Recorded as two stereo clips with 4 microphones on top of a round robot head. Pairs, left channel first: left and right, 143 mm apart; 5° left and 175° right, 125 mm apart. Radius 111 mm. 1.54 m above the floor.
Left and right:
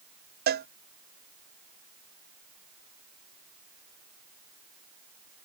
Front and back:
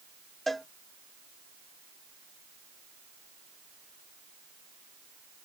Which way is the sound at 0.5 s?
85° right.